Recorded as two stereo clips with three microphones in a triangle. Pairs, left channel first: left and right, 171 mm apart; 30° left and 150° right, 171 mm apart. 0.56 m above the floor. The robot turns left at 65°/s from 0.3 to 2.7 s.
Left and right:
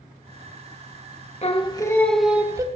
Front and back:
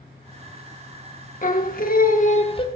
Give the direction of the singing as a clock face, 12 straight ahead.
10 o'clock.